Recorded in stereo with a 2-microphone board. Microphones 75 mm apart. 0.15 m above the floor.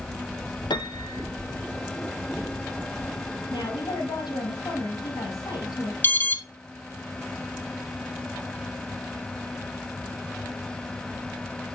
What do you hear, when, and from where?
0.7 s a piano: 70° left (ahead or behind), 1.1 m
3.5 s a woman speaking: 70° left (ahead or behind), 5.5 m
6.0 s an alarm: 25° left (ahead or behind), 1.0 m